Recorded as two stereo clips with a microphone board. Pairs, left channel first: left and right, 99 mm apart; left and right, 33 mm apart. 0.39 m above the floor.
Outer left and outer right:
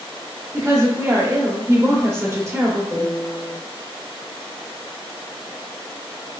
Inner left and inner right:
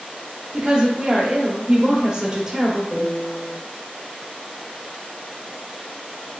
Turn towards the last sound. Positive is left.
turn(degrees=20)  # may be behind; listen again after turning